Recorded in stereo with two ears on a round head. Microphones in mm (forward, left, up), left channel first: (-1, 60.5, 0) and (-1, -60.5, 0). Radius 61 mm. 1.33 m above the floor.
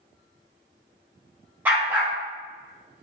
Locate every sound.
1.6 s a dog barking: 10° right (ahead or behind), 0.7 m